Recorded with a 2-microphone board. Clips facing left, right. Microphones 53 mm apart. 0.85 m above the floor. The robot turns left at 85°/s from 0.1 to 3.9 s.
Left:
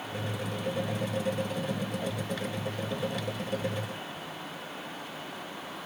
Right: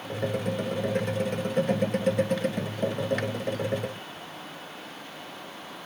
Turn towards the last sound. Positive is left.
No sound to turn to.